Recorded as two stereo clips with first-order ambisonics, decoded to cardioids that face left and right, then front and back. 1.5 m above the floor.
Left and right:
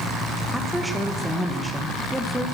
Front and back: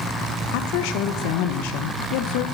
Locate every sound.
0.5 s a woman speaking: straight ahead, 2.0 m